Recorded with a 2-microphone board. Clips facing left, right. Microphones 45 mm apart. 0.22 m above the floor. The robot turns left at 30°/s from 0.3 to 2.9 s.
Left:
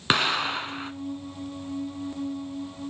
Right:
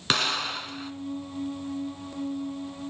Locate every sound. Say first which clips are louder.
0.1 s an explosion: left 3 dB; 20° left (ahead or behind), 0.7 m; by 0.9 s 35° left (ahead or behind), 0.7 m